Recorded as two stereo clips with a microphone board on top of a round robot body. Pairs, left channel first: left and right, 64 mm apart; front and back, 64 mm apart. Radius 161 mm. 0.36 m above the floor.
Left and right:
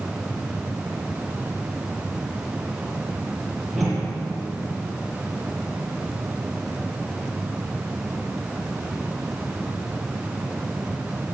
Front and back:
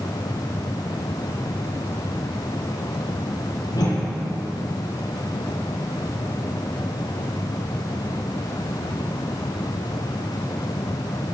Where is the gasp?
I don't hear a gasp.